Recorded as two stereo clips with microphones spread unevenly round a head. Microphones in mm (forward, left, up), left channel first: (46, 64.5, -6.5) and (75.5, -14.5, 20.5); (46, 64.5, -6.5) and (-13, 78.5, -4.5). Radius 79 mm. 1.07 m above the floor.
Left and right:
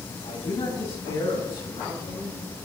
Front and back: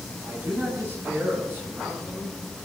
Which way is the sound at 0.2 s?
115° left.